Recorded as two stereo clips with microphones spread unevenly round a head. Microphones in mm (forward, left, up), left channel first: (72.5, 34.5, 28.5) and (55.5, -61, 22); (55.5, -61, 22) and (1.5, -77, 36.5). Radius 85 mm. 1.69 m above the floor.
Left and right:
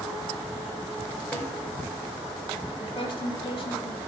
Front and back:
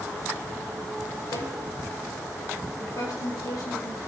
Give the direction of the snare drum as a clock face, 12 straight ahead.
12 o'clock.